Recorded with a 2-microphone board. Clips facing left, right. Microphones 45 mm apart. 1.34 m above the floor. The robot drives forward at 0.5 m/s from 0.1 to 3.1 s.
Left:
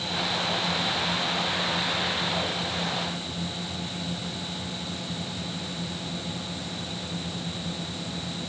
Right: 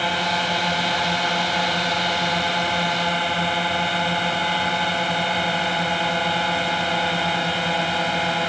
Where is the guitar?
No guitar in this recording.